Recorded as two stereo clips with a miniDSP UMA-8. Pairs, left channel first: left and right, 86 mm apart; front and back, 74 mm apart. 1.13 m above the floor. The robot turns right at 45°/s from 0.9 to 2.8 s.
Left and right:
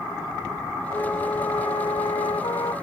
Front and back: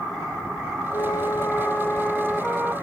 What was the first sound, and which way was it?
A flute, 30° left.